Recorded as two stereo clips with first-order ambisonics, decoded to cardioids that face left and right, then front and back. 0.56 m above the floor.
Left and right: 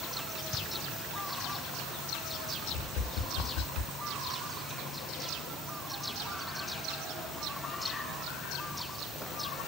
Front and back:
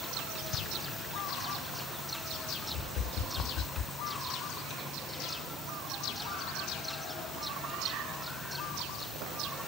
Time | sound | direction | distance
2.7 | tapping | 55° left | 0.5 m